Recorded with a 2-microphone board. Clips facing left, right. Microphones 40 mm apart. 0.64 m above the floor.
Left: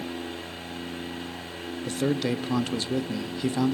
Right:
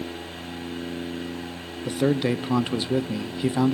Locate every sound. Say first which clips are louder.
1.9 s a man speaking: right 4 dB; 20° right (ahead or behind), 0.6 m